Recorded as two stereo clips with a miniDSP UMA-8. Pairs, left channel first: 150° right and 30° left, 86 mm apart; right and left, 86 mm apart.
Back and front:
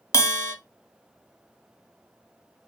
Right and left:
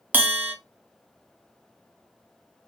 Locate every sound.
0.1 s a bell: 160° left, 0.6 m